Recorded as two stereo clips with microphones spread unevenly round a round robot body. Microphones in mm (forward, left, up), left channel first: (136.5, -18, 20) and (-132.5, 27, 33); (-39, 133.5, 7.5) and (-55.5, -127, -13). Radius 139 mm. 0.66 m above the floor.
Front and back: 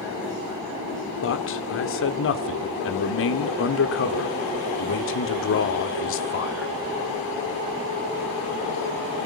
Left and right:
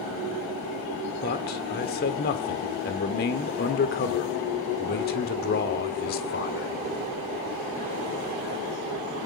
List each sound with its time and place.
1.2 s a man speaking: 30° left, 2.0 m